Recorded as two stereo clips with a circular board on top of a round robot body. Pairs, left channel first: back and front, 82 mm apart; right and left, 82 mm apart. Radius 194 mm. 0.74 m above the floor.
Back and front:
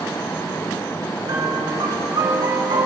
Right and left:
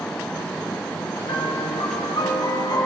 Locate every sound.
1.2 s a piano: 45° right, 3.5 m